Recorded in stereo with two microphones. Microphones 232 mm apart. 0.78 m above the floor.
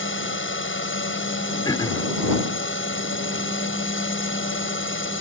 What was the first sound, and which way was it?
A drone, 60° left (ahead or behind).